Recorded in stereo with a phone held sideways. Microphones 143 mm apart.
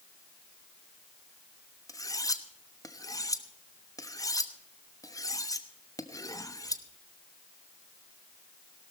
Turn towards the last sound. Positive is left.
turn(degrees=25)  # may be behind; listen again after turning